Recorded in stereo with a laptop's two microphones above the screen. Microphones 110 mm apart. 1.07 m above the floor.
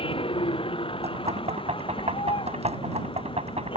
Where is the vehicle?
55° left (ahead or behind); by 3.8 s 50° left (ahead or behind).